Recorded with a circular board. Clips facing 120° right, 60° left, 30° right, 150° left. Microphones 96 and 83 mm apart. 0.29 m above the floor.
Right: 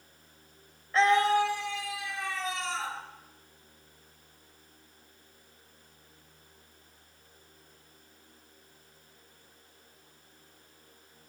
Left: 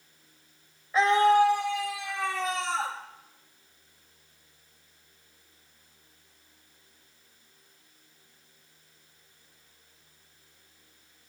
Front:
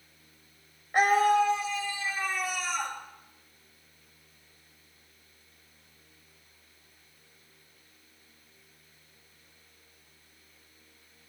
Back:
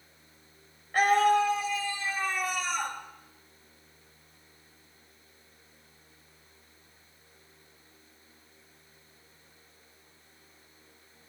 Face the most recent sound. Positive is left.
turn(degrees=75)